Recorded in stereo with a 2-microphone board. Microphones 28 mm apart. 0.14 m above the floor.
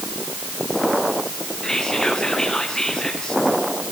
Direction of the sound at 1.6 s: 25° left (ahead or behind).